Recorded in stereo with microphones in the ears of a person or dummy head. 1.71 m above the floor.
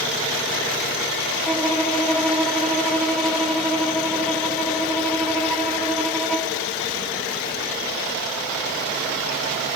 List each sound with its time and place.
1.4 s a violin: 5° left (ahead or behind), 1.6 m